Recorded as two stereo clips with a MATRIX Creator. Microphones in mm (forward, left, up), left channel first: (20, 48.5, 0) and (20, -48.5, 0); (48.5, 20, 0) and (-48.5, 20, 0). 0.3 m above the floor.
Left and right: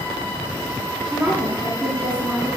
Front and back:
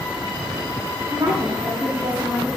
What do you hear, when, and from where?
1.1 s a woman speaking: 145° right, 1.9 m